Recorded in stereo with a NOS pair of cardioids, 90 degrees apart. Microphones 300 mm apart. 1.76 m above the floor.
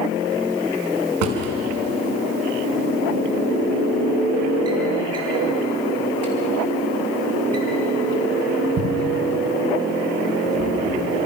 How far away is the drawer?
About 5.5 m.